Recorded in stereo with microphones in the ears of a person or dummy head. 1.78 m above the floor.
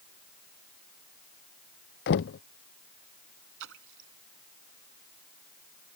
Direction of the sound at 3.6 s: 65° right (ahead or behind).